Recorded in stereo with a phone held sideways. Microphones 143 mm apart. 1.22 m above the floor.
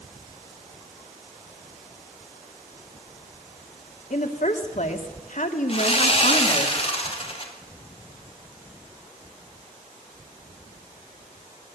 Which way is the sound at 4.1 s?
60° left (ahead or behind).